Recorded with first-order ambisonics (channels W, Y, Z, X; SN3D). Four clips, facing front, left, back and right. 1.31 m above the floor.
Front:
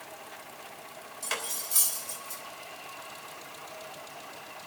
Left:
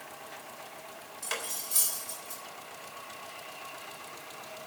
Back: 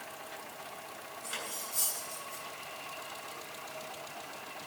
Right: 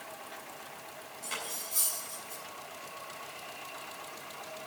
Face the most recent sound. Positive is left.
turn(degrees=30)